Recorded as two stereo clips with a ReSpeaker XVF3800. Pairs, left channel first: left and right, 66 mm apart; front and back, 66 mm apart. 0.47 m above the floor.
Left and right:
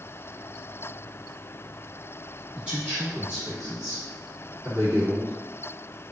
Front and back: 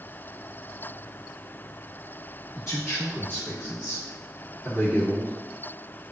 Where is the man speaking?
20° right, 1.8 m; by 5.3 s 140° right, 1.4 m.